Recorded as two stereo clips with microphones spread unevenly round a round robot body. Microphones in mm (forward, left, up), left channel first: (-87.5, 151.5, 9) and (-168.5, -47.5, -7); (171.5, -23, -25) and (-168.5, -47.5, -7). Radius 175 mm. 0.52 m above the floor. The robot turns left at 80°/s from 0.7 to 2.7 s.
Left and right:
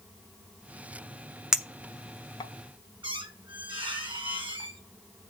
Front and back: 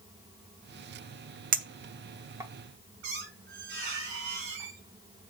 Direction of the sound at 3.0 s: Straight behind.